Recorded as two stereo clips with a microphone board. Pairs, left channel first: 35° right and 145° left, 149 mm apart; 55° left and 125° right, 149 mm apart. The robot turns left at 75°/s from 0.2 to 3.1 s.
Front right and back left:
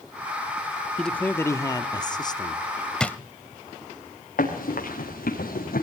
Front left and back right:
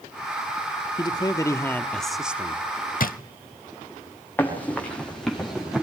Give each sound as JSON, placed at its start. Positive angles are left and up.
{"t": 1.0, "sound": "a man speaking", "azimuth_deg": 50, "distance_m": 0.7}
{"t": 3.0, "sound": "a drawer", "azimuth_deg": 50, "distance_m": 0.6}
{"t": 4.4, "sound": "running footsteps", "azimuth_deg": -20, "distance_m": 5.0}